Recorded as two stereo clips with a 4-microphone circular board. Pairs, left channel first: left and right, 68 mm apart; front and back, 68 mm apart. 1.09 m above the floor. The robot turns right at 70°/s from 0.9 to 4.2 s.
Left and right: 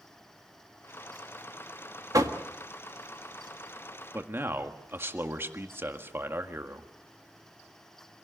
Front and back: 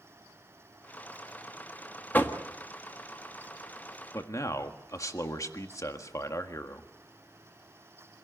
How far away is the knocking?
About 1.4 m.